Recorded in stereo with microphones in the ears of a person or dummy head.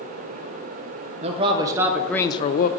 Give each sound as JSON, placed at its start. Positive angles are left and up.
{"t": 1.2, "sound": "a man speaking", "side_deg": -40, "distance_m": 0.9}